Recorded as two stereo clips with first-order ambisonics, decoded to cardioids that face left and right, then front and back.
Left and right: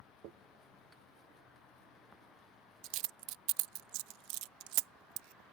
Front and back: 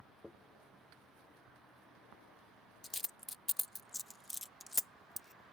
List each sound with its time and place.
0.2 s a dropped coin: 90° right